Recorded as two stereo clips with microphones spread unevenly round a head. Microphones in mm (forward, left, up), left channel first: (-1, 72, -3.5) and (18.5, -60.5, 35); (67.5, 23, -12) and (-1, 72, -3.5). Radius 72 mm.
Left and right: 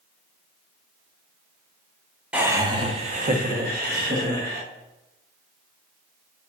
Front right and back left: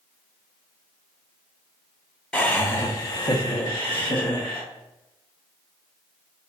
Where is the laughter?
15° left, 0.6 m; by 4.6 s 70° right, 1.4 m.